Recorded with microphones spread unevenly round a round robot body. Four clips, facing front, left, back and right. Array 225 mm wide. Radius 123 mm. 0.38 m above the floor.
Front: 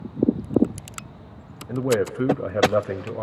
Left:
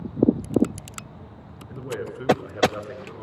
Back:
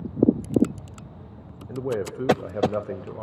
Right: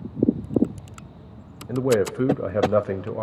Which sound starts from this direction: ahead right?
A man speaking, at 1.7 s.